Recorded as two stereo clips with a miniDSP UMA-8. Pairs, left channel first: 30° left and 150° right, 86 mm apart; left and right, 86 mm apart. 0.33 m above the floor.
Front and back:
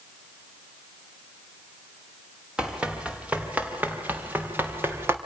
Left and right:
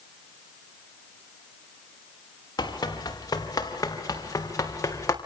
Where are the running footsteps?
130° left, 4.5 m; by 5.2 s 145° left, 4 m.